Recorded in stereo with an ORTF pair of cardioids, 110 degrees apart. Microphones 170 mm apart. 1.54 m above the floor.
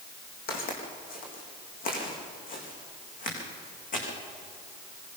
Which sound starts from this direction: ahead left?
Footsteps, at 0.5 s.